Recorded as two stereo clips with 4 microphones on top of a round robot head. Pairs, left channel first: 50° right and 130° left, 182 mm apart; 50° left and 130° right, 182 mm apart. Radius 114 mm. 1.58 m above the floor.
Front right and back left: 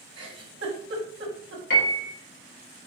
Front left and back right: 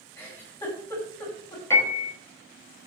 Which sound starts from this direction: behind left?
A giggle, at 0.2 s.